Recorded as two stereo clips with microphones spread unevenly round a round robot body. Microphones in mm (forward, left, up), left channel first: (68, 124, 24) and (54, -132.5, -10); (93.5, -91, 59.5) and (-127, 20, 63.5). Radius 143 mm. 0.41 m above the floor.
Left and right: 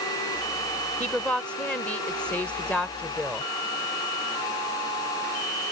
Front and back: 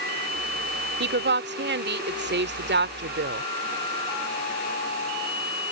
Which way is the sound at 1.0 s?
Straight behind.